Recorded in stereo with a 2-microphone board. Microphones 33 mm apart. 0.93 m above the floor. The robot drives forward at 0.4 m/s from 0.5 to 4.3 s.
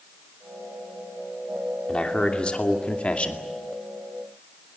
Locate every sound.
1.9 s a man speaking: 30° left (ahead or behind), 2.5 m; by 3.4 s 40° left (ahead or behind), 2.0 m